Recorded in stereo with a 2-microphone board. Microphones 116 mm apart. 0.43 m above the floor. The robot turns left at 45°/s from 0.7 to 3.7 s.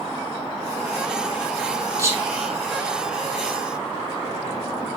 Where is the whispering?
25° right (ahead or behind), 4 m; by 3.6 s 45° left (ahead or behind), 4 m.